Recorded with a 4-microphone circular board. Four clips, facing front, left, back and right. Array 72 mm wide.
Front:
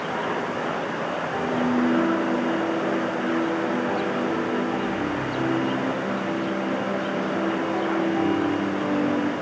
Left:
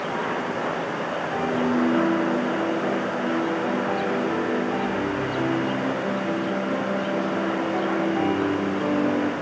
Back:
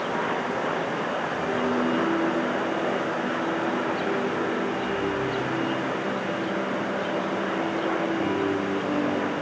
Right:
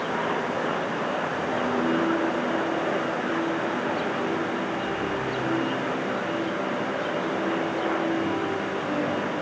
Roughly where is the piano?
Ahead left.